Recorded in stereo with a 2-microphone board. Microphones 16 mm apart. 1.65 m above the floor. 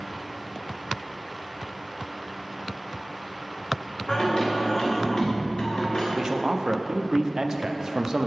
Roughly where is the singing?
Left.